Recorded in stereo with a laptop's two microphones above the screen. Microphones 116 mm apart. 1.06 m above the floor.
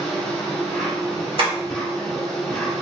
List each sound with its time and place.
0.0 s an insect: 5° left (ahead or behind), 1.3 m
1.4 s tapping: 55° right (ahead or behind), 1.7 m